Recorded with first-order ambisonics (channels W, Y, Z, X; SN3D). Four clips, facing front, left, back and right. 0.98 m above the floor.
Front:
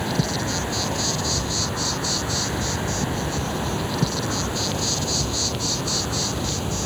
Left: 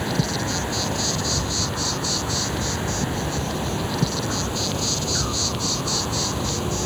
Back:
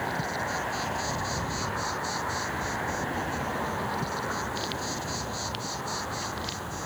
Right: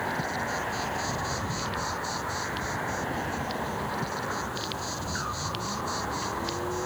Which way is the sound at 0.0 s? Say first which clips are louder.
Left 5 dB, front 5 dB; 45° left.